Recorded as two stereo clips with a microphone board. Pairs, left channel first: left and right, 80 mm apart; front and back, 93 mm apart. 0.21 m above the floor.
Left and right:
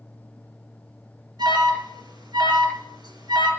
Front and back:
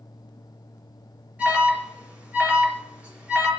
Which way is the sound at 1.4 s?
105° right.